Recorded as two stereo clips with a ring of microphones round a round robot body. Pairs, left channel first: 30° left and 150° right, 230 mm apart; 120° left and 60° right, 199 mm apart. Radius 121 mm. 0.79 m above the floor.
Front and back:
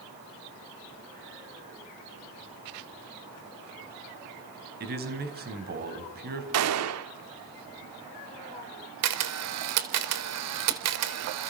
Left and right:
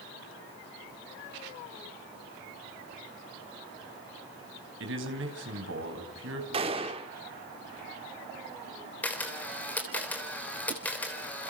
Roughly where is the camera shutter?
Behind right.